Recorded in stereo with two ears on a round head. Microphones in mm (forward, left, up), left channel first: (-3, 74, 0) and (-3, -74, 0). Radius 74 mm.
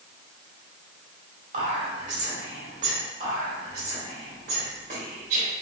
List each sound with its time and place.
1.5 s whispering: 45° right (ahead or behind), 2.0 m
3.2 s whispering: 60° right (ahead or behind), 1.6 m